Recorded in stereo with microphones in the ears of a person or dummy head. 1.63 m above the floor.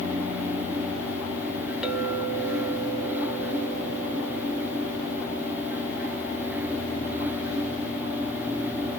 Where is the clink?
Centre (ahead or behind), 1.0 m.